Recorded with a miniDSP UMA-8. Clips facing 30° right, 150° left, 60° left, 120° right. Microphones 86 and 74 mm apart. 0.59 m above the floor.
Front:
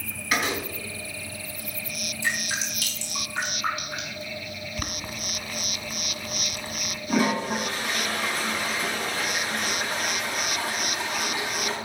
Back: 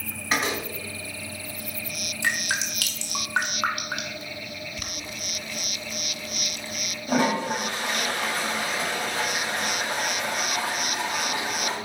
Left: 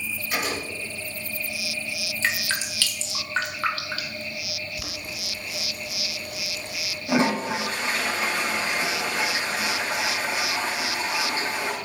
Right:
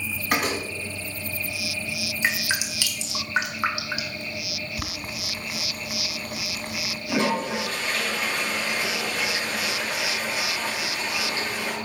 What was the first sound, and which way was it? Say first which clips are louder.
A door slam: even, right 4 dB; 150° right.